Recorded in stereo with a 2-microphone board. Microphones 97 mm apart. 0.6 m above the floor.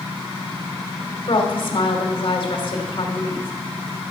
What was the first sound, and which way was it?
A woman speaking, 55° left (ahead or behind).